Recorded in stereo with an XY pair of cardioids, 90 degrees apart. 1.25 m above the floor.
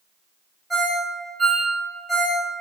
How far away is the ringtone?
About 1.7 m.